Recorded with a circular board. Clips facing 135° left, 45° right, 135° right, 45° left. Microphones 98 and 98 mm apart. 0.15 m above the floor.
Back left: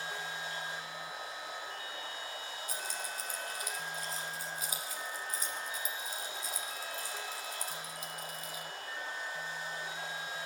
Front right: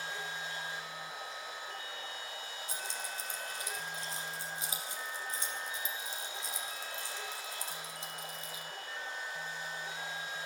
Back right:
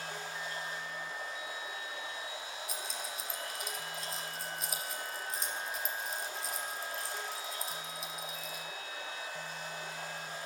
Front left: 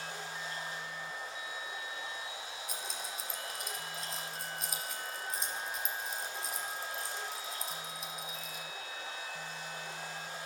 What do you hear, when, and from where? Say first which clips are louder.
0.0 s running water: back left 1 dB, back right 1 dB; 170° right, 4 m
2.7 s keys jangling: back left 1 dB, even; 45° right, 1.1 m